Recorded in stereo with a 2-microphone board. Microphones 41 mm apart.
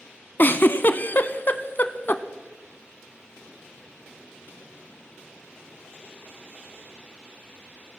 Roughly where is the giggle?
Left.